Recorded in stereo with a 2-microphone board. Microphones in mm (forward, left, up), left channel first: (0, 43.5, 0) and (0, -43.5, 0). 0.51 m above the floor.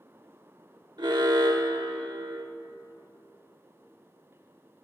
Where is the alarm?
60° right (ahead or behind), 1.2 m.